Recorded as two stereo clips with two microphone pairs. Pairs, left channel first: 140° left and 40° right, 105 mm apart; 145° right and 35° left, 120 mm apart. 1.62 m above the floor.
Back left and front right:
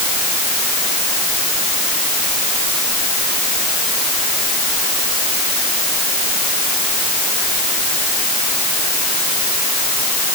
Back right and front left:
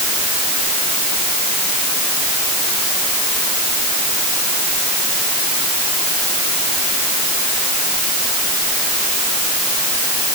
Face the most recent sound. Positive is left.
No sound to turn to.